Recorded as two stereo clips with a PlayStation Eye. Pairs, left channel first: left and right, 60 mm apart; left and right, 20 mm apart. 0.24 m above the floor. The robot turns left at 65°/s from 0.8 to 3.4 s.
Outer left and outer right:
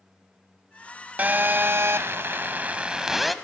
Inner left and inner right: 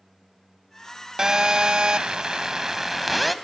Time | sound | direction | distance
1.2 | a phone buzzing | 45° right | 0.9 m